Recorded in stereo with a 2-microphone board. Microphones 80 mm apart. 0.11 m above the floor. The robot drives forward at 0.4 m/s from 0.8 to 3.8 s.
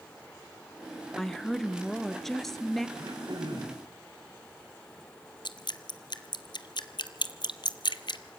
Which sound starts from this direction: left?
Dripping, at 5.5 s.